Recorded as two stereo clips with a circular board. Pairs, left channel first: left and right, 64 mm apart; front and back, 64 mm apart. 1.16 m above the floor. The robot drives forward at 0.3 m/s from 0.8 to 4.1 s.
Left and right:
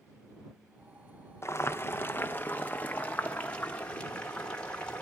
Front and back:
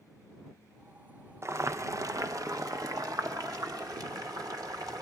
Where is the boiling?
135° left, 0.6 m; by 5.0 s 160° left, 1.3 m.